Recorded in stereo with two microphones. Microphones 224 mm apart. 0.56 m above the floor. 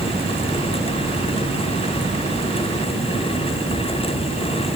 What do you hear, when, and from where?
Only background noise.